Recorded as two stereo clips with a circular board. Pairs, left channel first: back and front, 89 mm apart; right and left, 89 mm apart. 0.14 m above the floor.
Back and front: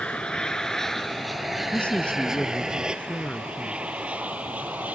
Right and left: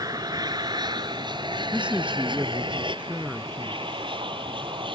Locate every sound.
0.0 s an aircraft: 105° left; by 5.0 s 70° left
1.7 s a man speaking: 140° left